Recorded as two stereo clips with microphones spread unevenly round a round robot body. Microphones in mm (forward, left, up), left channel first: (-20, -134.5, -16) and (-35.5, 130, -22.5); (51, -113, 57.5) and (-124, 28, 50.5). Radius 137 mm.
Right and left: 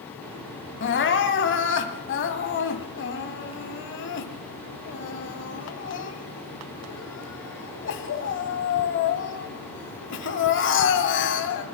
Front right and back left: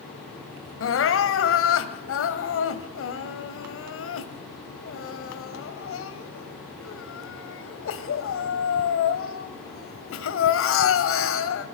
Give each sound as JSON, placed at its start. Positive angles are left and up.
{"t": 0.8, "sound": "crying", "azimuth_deg": -40, "distance_m": 2.0}